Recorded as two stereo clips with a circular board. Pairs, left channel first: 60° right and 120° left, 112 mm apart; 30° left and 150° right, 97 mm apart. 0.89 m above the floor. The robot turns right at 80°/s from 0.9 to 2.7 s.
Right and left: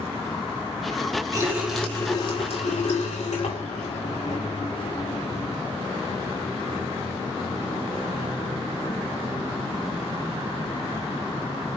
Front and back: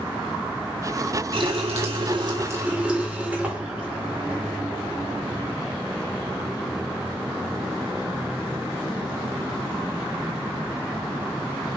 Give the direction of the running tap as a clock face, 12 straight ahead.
6 o'clock.